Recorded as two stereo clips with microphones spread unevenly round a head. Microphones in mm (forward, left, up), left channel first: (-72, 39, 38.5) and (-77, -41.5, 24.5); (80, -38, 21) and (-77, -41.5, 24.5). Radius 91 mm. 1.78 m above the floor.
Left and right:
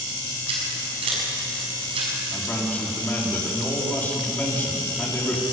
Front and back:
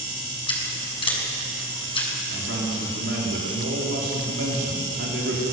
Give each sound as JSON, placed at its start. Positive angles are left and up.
{"t": 0.5, "sound": "scissors", "azimuth_deg": -55, "distance_m": 6.0}
{"t": 2.3, "sound": "a man speaking", "azimuth_deg": 155, "distance_m": 5.0}